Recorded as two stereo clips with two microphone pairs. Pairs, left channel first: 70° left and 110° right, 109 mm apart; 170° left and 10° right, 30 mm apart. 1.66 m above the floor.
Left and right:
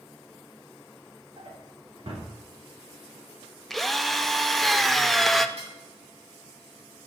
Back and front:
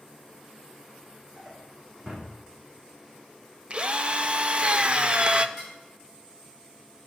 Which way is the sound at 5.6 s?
90° right.